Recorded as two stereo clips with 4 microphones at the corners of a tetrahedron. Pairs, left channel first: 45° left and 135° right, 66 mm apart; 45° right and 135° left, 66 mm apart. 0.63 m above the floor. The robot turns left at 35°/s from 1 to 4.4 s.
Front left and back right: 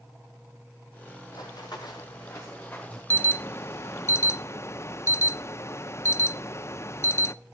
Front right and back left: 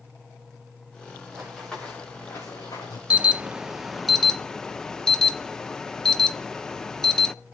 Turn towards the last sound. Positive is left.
turn(degrees=30)